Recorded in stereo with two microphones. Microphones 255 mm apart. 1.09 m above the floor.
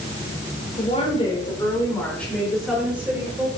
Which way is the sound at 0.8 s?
30° left (ahead or behind).